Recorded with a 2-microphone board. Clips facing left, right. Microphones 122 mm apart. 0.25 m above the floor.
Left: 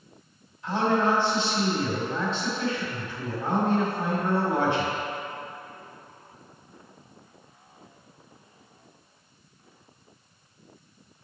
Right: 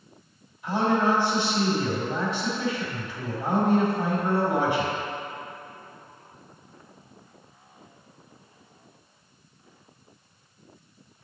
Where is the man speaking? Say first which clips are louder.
Right 1 dB; 15° right (ahead or behind), 1.6 m.